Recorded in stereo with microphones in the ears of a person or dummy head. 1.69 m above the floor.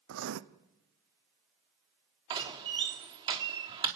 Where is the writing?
75° right (ahead or behind), 0.9 m.